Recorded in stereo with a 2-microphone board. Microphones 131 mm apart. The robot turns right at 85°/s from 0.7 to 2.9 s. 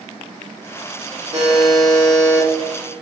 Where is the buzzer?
70° right, 1.4 m; by 2.5 s 30° left, 1.4 m.